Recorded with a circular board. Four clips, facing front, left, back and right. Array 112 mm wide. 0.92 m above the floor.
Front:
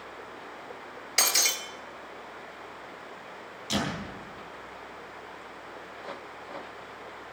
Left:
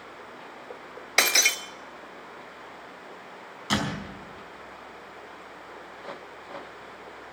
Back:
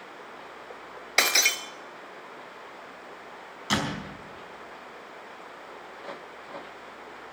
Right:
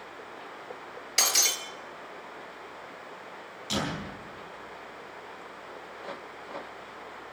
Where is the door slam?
130° left, 4.5 m.